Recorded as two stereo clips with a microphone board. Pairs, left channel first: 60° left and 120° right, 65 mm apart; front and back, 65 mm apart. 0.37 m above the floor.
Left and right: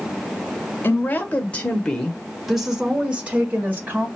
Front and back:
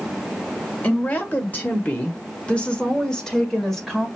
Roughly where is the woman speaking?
Ahead left.